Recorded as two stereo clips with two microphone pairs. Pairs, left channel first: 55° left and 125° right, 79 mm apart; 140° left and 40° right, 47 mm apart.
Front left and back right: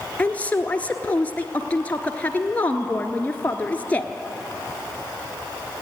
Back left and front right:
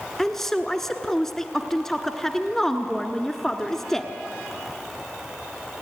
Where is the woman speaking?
75° left, 1.1 m.